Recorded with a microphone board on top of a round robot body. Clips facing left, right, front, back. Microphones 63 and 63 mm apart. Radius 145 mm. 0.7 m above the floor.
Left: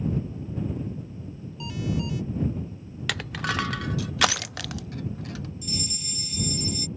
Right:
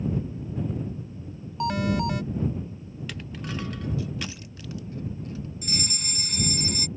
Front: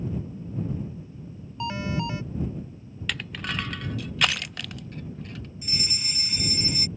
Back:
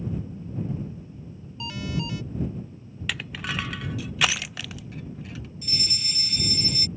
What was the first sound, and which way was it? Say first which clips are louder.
An alarm: right 6 dB, front 3 dB; 60° right.